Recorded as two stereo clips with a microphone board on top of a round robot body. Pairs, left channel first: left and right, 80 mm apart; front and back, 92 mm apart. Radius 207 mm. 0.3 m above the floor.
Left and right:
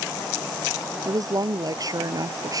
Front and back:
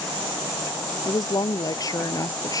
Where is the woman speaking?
50° right.